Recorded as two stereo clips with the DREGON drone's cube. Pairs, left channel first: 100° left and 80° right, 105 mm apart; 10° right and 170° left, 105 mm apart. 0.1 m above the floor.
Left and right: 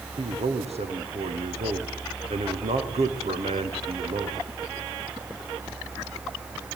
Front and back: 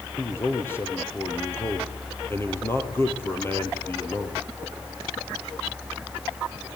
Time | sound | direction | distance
0.2 | a man speaking | 80° right | 3.5 m